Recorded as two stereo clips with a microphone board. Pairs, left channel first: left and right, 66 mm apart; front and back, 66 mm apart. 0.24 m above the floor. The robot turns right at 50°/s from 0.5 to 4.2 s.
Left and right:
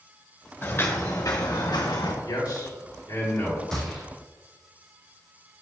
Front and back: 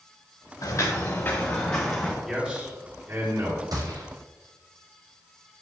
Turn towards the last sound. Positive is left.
turn(degrees=-165)